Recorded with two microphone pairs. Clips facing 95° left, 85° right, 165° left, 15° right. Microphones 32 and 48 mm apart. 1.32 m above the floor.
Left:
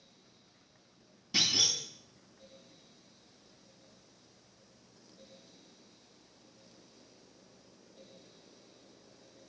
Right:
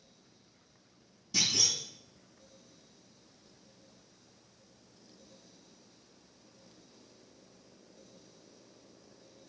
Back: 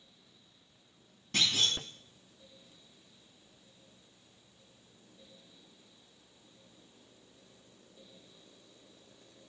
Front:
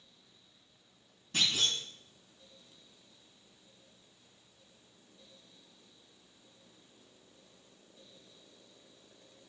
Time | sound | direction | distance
1.3 | a clunk | 145° left | 6 m